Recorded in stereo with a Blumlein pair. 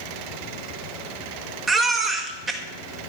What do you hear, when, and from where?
1.7 s a baby crying: 20° right, 1.5 m